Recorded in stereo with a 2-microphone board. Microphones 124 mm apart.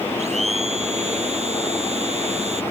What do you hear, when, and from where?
0.2 s a blender: 70° right (ahead or behind)